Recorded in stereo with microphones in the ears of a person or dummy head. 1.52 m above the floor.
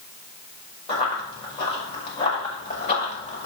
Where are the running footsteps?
35° left (ahead or behind), 5 m; by 3.5 s 40° left (ahead or behind), 6.5 m.